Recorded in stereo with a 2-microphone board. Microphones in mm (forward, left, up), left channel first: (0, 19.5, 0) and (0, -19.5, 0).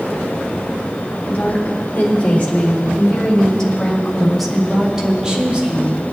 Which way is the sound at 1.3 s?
40° left (ahead or behind).